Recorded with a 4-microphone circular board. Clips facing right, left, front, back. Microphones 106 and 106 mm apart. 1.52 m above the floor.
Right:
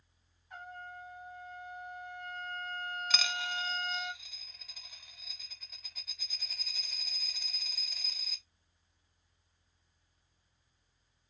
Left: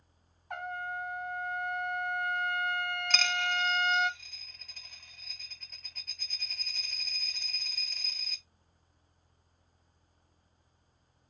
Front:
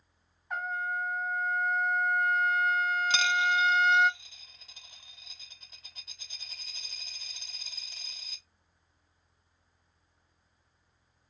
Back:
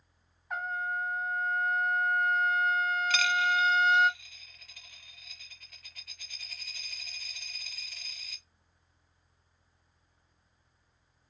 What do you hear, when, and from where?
0.5 s a trumpet: 90° left, 0.5 m
3.1 s a dropped coin: 15° right, 0.9 m